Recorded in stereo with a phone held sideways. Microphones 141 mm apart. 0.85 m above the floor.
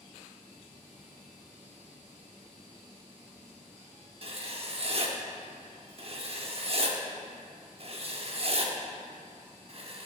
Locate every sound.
4.2 s writing: 45° right (ahead or behind), 0.8 m